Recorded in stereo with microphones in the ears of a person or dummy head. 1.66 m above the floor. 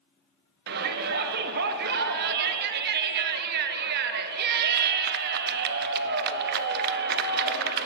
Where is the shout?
60° right (ahead or behind), 0.6 m.